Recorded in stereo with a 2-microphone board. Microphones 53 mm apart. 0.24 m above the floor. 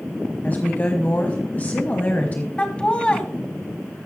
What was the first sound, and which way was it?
A woman speaking, 30° left (ahead or behind).